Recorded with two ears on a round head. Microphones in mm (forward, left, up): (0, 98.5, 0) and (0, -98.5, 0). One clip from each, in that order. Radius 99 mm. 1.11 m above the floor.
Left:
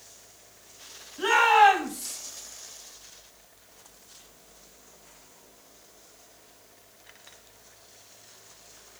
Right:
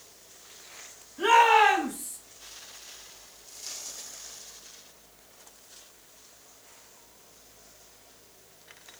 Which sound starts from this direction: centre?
A shout, at 1.2 s.